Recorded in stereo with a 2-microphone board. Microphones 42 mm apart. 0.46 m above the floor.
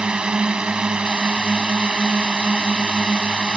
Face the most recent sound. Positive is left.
turn(degrees=-25)  # may be behind; listen again after turning